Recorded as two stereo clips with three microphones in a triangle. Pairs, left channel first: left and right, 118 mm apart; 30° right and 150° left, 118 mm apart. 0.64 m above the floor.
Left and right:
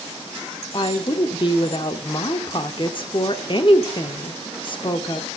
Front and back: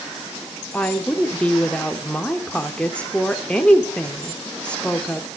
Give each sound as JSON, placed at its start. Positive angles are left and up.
{"t": 0.7, "sound": "a woman speaking", "azimuth_deg": 50, "distance_m": 1.3}